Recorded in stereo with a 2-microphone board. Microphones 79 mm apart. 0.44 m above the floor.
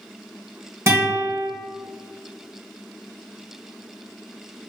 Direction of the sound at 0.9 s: 35° right (ahead or behind).